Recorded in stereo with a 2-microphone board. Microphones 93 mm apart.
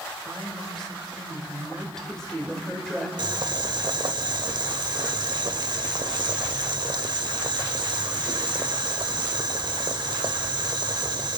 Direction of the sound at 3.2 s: 55° right (ahead or behind).